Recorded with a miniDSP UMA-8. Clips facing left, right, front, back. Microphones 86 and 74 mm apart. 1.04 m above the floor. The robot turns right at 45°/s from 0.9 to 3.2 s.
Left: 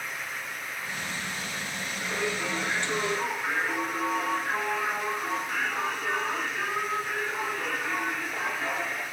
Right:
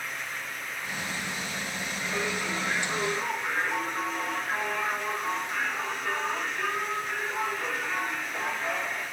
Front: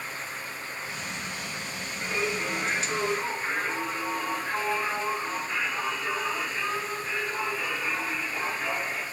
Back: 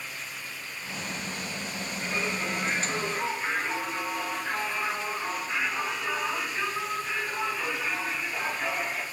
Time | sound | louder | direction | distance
2.0 | singing | left 1 dB, front 2 dB | 50° left | 2.5 m